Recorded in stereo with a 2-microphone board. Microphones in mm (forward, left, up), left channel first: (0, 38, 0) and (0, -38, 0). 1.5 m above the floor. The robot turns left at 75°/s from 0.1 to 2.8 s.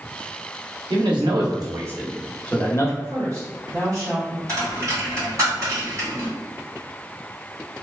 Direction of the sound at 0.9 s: 75° right.